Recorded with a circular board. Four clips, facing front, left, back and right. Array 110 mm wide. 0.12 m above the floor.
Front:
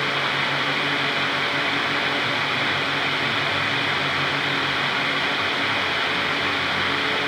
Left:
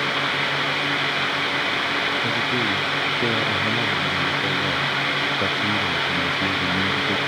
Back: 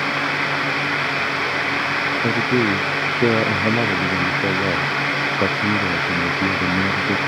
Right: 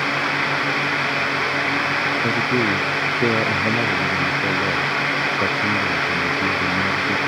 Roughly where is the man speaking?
Behind.